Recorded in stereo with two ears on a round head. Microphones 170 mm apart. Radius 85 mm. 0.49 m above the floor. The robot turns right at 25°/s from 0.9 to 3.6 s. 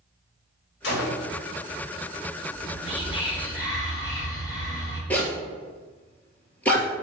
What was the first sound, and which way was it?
A gunshot, 65° left (ahead or behind).